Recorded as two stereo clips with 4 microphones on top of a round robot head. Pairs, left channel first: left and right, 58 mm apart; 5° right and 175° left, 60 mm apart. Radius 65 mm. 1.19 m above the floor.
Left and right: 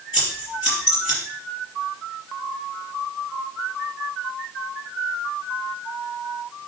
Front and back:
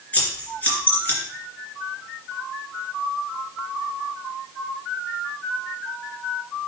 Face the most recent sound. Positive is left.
turn(degrees=65)